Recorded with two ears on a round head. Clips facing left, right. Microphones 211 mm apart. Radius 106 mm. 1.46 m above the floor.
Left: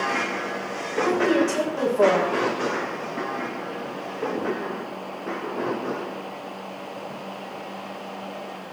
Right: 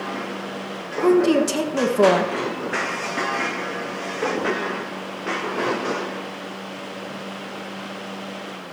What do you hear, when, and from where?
1.0 s a woman speaking: 50° right (ahead or behind), 1.6 m